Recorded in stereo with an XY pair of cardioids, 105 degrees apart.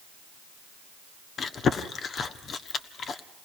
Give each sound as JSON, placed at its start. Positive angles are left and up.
{"t": 1.4, "sound": "chewing", "azimuth_deg": 50, "distance_m": 1.3}